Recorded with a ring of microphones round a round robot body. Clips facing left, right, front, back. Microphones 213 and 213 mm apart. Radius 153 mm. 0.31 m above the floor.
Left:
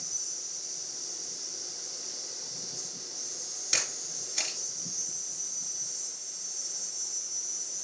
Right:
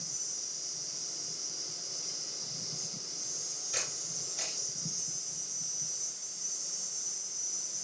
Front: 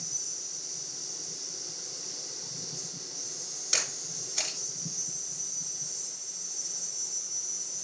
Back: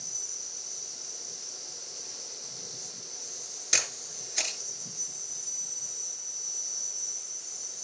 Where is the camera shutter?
110° left, 4.5 m.